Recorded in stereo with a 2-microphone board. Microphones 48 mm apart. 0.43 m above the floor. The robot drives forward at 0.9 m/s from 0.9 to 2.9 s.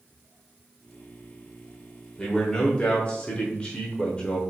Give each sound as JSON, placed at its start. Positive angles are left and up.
{"t": 2.2, "sound": "a man speaking", "side_deg": 15, "distance_m": 1.1}